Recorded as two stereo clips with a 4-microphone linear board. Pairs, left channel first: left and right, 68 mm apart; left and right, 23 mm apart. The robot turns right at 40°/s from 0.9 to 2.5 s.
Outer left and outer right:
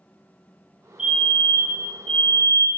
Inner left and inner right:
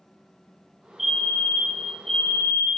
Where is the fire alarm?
15° right, 3 m; by 2.7 s 45° left, 3 m.